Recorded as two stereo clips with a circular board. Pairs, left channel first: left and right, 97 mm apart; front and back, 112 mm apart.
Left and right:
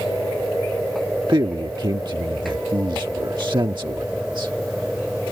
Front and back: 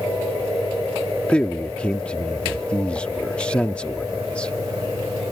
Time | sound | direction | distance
1.3 | a man speaking | 75° right | ?